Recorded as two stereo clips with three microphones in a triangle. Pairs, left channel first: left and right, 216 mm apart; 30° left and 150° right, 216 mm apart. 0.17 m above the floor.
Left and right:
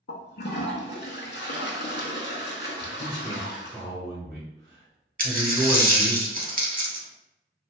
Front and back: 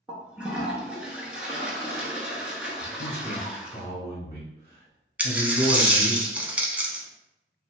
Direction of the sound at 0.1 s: 125° left.